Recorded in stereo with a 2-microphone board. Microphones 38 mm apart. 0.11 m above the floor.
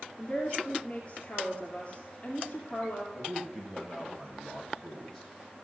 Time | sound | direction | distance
0.2 | a woman speaking | 35° left (ahead or behind) | 2 m
3.1 | a man speaking | 5° left (ahead or behind) | 4 m